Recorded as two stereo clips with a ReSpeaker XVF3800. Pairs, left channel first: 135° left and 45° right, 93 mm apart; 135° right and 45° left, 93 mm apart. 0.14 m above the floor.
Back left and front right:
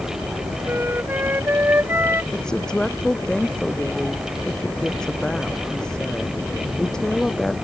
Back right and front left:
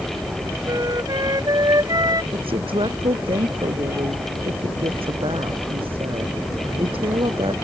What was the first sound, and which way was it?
A flute, 15° left.